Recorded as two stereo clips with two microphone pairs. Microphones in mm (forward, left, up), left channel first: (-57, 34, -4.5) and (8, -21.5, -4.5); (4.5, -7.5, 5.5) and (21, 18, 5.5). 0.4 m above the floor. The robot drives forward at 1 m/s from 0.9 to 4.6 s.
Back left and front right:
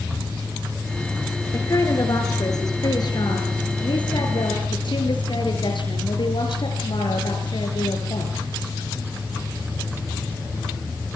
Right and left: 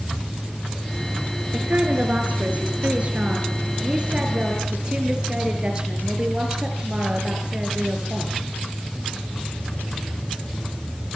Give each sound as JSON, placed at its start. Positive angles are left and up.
{"t": 1.5, "sound": "a woman speaking", "azimuth_deg": 90, "distance_m": 6.5}